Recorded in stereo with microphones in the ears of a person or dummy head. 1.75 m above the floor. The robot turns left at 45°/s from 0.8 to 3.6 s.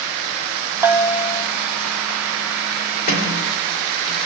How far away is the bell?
About 0.5 m.